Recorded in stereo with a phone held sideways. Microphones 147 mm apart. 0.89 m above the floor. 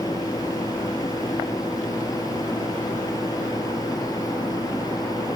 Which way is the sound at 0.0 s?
25° left (ahead or behind).